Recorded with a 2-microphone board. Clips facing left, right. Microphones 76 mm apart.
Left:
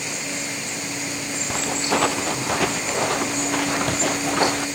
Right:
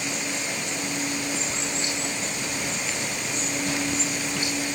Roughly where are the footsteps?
Left.